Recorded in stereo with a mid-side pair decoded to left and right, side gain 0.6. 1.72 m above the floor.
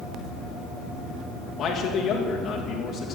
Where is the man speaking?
35° left, 3 m.